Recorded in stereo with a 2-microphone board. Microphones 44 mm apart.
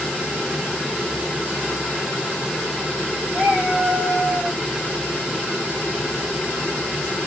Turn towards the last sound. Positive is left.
turn(degrees=-40)  # may be behind; listen again after turning